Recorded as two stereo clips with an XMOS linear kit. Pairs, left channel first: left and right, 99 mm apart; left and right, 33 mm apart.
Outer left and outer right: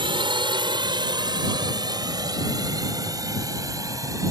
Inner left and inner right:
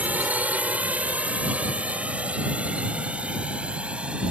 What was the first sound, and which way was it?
A drone, 55° right (ahead or behind).